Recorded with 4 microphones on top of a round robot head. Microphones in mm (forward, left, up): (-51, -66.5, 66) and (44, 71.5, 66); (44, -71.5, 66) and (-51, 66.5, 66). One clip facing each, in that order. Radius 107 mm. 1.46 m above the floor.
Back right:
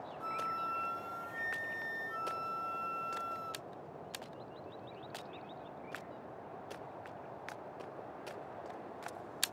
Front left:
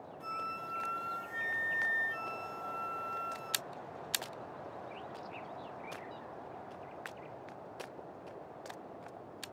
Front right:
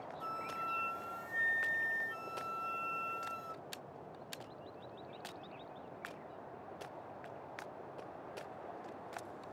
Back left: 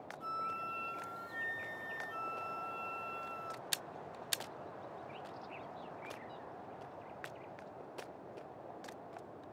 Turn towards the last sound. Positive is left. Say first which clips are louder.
# back right 1 dB, front right 1 dB
turn(degrees=-20)